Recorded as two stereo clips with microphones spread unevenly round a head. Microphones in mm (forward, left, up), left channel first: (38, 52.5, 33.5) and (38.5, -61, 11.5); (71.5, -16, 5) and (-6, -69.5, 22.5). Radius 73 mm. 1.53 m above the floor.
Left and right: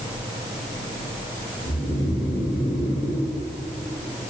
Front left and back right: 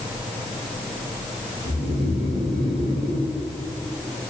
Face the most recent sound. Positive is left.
turn(degrees=-170)